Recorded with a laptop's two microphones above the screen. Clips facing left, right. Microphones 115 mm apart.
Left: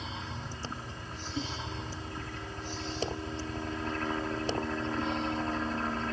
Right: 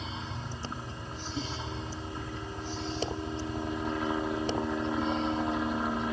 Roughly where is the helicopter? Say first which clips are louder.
Right 1 dB; centre.